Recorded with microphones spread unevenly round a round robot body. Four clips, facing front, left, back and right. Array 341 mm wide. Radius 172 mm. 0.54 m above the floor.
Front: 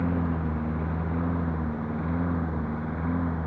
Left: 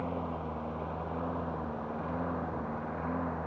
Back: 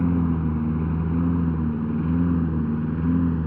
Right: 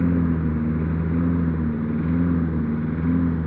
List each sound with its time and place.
0.0 s a lawn mower: 115° right; by 3.5 s 125° right